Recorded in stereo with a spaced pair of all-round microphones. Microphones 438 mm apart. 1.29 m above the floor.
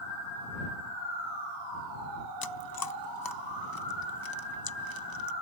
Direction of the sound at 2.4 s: 55° left (ahead or behind).